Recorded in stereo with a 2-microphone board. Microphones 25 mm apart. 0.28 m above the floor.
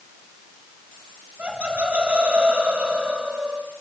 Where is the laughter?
75° right (ahead or behind), 4.5 m; by 3.6 s 80° right, 6.5 m.